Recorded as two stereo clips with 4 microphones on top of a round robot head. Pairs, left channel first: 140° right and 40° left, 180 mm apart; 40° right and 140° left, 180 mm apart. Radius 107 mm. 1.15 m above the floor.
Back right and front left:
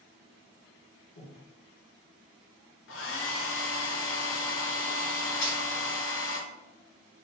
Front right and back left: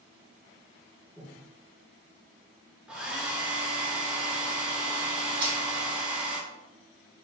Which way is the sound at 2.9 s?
135° right.